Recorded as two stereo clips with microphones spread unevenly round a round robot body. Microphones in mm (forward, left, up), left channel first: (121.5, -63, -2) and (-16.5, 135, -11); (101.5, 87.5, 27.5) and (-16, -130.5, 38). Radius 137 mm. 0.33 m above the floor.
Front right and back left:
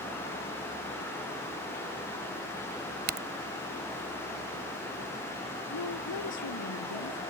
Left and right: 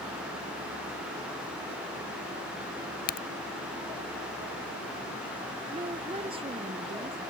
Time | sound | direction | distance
3.1 | a crack | 100° left | ?
5.7 | a woman speaking | 50° right | ?